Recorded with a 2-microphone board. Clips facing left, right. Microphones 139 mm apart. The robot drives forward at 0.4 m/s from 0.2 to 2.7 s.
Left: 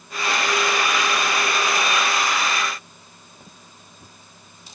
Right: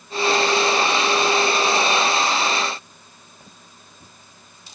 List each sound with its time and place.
Only background noise.